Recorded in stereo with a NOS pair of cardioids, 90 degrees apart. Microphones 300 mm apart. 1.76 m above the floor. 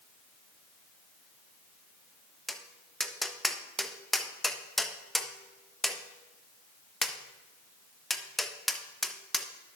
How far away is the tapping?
About 0.6 m.